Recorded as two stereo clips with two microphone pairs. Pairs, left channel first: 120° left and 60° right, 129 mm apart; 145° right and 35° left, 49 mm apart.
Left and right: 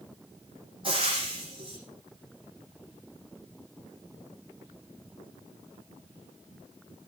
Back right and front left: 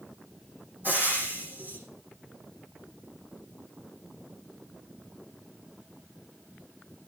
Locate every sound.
0.8 s frying: 10° right, 10 m